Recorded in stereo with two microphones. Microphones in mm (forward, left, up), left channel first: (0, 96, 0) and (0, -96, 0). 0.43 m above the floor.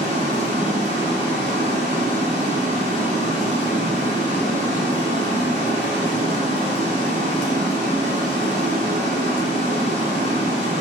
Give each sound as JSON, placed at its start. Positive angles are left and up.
{"t": 0.0, "sound": "running water", "side_deg": -50, "distance_m": 1.4}